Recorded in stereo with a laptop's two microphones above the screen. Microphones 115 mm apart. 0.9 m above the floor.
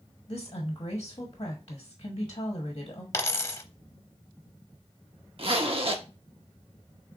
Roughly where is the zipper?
Right.